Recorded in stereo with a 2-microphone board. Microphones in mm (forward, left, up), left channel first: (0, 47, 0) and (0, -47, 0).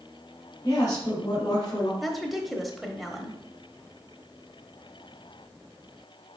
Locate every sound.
0.6 s a woman speaking: 40° left (ahead or behind), 2 m
2.0 s a woman speaking: centre (ahead or behind), 1.0 m